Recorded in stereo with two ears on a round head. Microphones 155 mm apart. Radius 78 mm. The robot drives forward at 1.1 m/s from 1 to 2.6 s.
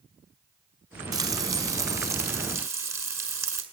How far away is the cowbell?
No cowbell in this recording.